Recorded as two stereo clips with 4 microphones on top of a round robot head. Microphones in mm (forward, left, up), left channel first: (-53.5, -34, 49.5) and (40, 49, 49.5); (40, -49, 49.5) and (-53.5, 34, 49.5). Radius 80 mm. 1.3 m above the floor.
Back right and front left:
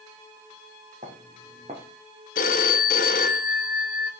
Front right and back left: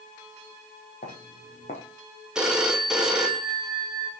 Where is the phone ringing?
135° right, 0.9 m.